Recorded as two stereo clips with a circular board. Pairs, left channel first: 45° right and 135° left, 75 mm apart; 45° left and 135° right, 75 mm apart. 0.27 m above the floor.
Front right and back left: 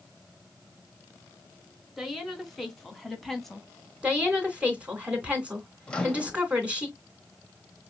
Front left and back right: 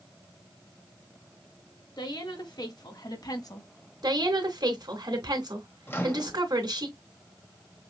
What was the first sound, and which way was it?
A woman speaking, 45° left.